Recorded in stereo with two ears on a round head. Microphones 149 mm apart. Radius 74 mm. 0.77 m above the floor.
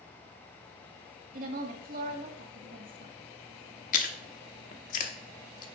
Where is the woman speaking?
50° right (ahead or behind), 1.6 m.